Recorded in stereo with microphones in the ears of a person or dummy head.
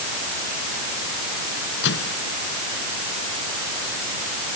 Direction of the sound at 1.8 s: 65° left (ahead or behind).